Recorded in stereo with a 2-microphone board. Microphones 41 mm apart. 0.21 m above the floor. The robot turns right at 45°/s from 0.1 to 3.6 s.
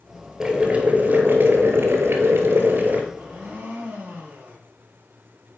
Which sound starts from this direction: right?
A blender, at 3.1 s.